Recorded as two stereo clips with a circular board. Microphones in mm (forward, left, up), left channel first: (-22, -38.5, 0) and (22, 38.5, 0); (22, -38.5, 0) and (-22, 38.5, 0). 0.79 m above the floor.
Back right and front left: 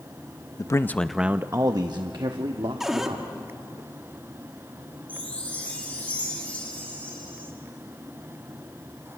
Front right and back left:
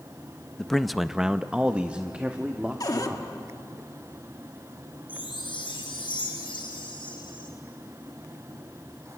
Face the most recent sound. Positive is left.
turn(degrees=-45)